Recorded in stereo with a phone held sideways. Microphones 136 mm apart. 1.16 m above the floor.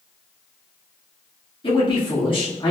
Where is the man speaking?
40° left (ahead or behind), 1.8 m.